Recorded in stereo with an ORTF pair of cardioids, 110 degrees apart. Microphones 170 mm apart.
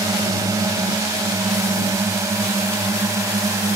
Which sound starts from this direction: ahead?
A drone, at 0.0 s.